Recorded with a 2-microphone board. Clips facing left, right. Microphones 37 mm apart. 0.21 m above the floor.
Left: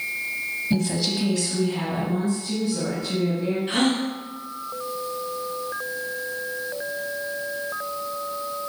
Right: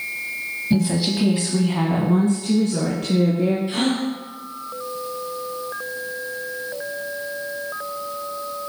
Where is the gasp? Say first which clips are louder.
Even; 55° left (ahead or behind), 2.5 m.